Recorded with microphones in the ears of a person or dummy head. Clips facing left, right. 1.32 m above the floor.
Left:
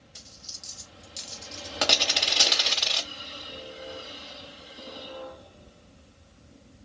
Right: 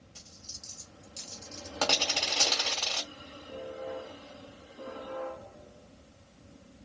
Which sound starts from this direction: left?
A dropped coin, at 0.1 s.